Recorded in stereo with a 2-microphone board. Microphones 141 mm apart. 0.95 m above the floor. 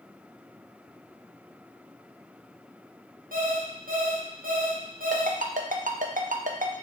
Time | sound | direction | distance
3.3 | an alarm clock | 90° right | 0.8 m
5.1 | a ringtone | 70° right (ahead or behind) | 0.5 m